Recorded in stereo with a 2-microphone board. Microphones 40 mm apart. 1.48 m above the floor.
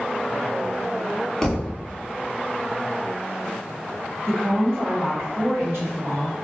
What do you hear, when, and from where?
1.4 s a thud: 20° left (ahead or behind), 0.8 m
4.3 s a woman speaking: 80° right, 1.5 m